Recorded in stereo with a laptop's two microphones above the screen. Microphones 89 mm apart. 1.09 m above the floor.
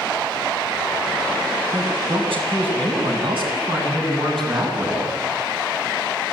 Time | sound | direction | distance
1.7 | a man speaking | 85° right | 6 m